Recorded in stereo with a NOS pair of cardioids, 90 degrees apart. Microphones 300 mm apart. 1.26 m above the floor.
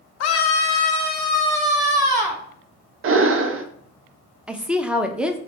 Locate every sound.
0.2 s a scream: 60° left, 0.6 m; by 2.4 s 5° right, 1.3 m
3.0 s breathing: 45° right, 0.6 m
4.5 s a woman speaking: 5° right, 0.6 m